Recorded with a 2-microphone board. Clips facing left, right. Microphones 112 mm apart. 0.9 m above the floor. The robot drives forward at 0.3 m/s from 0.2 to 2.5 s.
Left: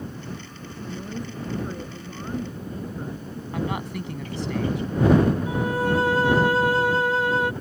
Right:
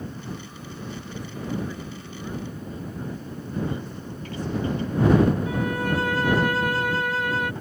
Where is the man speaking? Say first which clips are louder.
Left 2 dB; 85° left.